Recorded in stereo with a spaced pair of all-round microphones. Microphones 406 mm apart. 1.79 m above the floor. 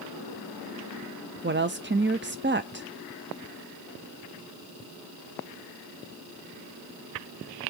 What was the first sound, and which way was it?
A woman speaking, 30° right (ahead or behind).